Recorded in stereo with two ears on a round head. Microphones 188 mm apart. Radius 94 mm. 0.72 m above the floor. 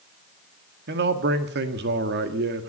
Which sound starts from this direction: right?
A man speaking, at 0.9 s.